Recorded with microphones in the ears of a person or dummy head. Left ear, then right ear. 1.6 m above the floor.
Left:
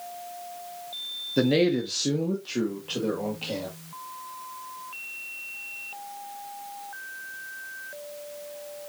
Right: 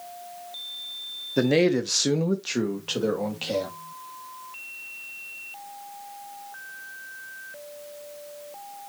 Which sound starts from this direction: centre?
A man speaking, at 1.4 s.